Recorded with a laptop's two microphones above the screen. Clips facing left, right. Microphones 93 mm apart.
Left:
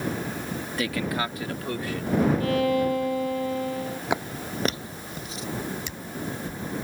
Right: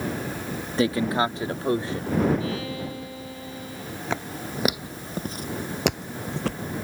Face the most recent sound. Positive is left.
turn(degrees=-75)  # may be behind; listen again after turning